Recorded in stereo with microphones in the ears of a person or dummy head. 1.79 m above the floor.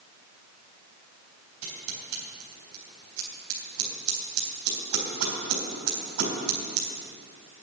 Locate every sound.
1.6 s scissors: 70° right (ahead or behind), 3.5 m